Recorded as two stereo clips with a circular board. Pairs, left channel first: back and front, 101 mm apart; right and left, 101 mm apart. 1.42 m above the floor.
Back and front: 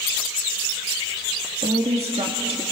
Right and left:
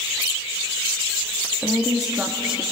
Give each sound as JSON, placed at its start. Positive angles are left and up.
{"t": 1.6, "sound": "a woman speaking", "azimuth_deg": 5, "distance_m": 2.0}